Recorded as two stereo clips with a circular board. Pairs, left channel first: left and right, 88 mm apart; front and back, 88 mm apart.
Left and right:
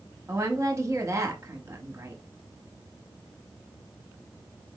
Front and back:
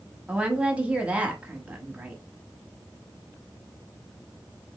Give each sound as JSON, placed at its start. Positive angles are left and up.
{"t": 0.3, "sound": "a woman speaking", "azimuth_deg": -115, "distance_m": 0.9}